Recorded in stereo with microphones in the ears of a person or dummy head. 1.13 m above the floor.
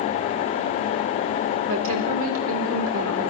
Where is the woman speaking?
80° right, 3.5 m.